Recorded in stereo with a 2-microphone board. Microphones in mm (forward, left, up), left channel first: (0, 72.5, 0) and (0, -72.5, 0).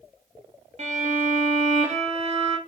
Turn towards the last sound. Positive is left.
turn(degrees=-45)  # may be behind; listen again after turning